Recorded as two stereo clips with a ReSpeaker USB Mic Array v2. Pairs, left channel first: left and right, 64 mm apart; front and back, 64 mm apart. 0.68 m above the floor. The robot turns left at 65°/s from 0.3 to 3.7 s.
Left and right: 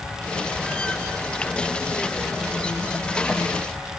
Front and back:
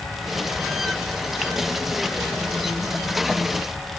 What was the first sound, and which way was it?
Only background noise.